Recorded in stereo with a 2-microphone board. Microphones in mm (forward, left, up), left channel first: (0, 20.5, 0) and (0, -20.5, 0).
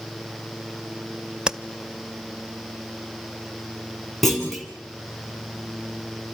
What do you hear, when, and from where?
1.5 s tapping: 20° right (ahead or behind), 0.6 m
4.2 s a clunk: 5° left (ahead or behind), 4 m